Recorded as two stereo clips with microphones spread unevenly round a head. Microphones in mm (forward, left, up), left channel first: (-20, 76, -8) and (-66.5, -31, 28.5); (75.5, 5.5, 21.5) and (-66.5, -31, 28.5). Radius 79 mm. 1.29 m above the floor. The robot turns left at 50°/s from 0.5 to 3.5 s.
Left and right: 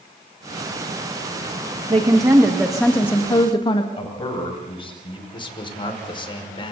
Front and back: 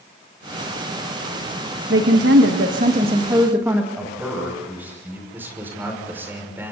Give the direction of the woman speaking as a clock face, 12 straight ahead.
5 o'clock.